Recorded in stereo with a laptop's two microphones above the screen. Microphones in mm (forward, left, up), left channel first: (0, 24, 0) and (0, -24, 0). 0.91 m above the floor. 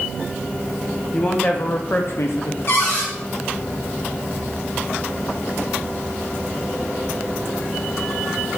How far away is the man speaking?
About 1.2 m.